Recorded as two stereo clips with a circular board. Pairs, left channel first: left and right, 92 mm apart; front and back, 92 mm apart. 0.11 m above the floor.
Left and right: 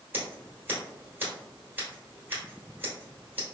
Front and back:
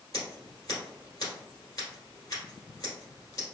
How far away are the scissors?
About 2.0 m.